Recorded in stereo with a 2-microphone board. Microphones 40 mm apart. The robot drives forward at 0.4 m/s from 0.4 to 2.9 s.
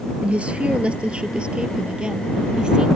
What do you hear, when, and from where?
0.2 s a woman speaking: 30° right (ahead or behind); by 2.9 s 20° right (ahead or behind)